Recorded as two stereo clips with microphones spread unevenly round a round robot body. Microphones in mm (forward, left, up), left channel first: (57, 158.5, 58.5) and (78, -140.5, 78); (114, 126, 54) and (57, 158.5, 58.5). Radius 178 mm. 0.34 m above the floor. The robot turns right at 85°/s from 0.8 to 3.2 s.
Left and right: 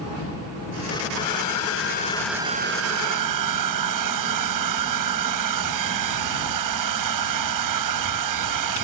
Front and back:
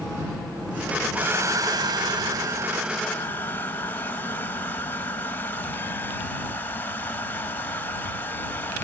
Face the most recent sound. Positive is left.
turn(degrees=-100)